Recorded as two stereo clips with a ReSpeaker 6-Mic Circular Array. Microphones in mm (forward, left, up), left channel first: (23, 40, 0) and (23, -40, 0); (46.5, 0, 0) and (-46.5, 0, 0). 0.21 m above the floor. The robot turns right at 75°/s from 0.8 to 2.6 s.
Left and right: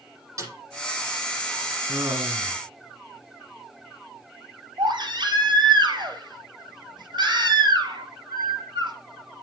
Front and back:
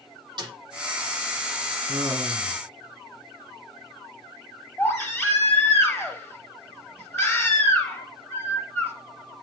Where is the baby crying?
65° right, 4 m.